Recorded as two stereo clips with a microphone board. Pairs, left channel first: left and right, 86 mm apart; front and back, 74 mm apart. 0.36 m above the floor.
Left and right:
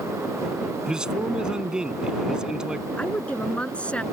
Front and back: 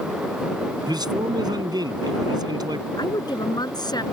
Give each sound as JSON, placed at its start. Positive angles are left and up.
{"t": 0.9, "sound": "a man speaking", "azimuth_deg": -170}
{"t": 3.0, "sound": "a woman speaking", "azimuth_deg": 15}